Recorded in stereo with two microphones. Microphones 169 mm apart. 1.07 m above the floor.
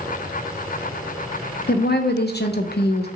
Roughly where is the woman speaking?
Left.